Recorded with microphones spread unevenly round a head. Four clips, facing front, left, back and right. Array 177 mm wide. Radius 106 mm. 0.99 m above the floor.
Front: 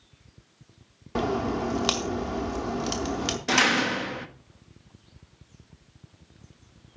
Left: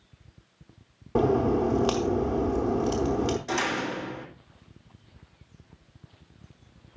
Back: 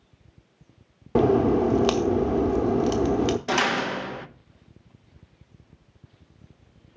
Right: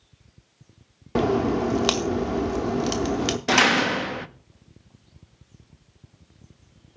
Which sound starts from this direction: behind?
A crack, at 1.1 s.